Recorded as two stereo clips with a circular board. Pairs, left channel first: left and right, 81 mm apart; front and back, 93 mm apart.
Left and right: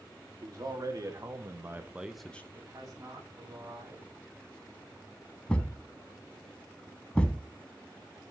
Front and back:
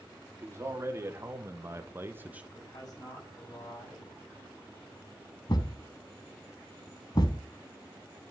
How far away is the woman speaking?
About 6.5 m.